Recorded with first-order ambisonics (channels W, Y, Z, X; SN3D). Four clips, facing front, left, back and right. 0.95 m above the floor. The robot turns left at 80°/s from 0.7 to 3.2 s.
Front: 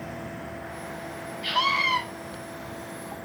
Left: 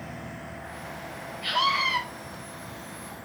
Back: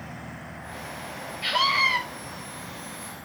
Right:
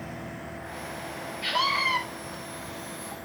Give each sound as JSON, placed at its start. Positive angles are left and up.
{"t": 1.4, "sound": "a scream", "azimuth_deg": -160, "distance_m": 4.5}